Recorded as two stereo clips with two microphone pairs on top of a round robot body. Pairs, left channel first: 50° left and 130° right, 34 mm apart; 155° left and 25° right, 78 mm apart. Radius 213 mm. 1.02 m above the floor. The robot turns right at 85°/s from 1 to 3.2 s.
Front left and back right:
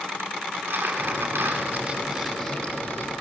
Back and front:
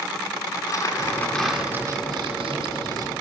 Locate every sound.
0.5 s crumpling: 155° right, 7.5 m; by 3.2 s 35° left, 7.5 m